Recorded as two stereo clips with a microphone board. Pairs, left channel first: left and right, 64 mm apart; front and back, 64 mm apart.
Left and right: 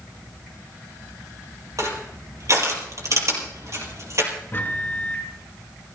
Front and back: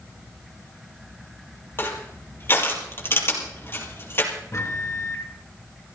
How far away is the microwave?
About 3 m.